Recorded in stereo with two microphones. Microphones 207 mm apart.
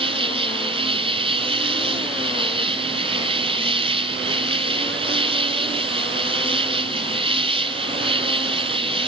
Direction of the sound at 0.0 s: 25° right (ahead or behind).